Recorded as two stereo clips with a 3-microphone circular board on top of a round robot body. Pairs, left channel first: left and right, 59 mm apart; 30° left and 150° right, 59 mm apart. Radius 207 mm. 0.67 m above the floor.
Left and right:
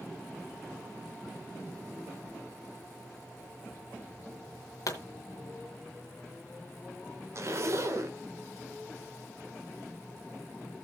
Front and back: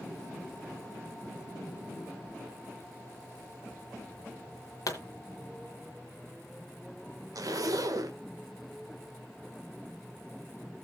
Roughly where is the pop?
Ahead left.